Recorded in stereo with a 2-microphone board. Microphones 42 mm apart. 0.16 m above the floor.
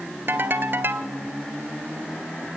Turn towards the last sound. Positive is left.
turn(degrees=-55)  # may be behind; listen again after turning